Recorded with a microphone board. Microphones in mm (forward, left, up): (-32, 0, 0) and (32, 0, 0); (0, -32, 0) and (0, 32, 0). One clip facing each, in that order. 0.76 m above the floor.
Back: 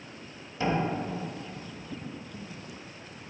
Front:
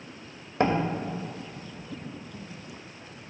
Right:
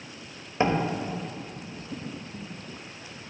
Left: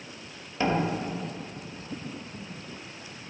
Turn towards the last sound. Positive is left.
turn(degrees=-25)